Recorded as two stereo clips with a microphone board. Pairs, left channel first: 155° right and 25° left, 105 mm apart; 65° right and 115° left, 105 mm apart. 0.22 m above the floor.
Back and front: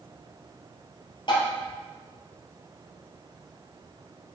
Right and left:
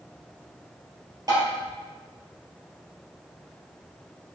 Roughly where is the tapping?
Behind.